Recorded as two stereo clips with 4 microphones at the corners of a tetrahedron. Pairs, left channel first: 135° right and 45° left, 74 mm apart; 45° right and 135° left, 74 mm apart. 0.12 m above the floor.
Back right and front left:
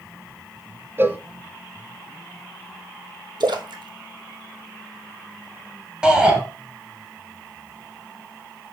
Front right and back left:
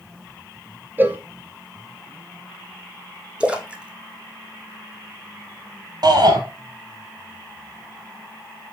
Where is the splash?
60° left, 0.9 m.